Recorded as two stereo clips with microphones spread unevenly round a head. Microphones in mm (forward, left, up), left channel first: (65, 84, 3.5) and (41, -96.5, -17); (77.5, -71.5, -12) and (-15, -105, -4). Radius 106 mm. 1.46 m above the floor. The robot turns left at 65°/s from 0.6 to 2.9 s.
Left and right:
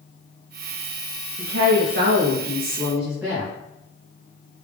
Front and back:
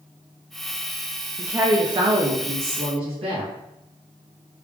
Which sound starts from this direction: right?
A woman speaking, at 1.4 s.